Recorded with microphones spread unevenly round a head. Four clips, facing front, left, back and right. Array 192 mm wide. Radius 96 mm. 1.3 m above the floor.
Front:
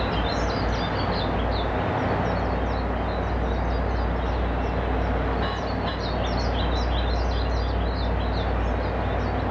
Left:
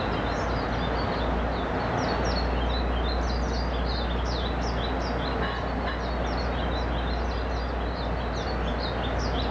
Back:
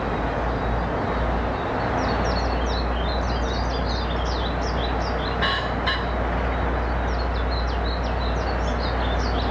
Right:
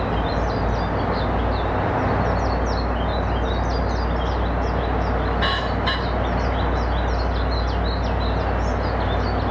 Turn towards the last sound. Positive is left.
No sound to turn to.